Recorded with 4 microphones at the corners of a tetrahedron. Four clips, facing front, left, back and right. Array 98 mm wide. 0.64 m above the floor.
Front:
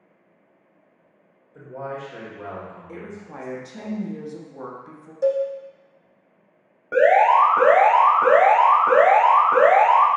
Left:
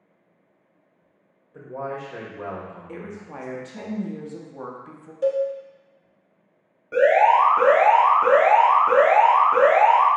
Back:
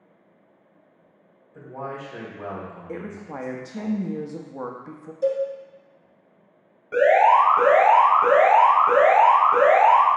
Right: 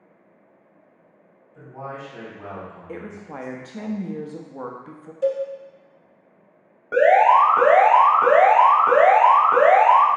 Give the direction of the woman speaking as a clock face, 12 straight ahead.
5 o'clock.